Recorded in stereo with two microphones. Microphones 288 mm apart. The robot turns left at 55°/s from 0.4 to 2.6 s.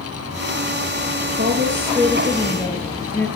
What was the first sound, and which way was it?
A woman speaking, 120° right.